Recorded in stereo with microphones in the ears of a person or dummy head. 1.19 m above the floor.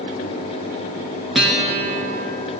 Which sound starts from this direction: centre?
A guitar, at 1.4 s.